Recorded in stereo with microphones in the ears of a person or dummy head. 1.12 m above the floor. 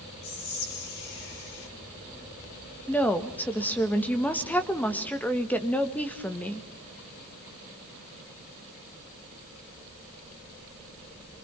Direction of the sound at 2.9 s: 5° left (ahead or behind).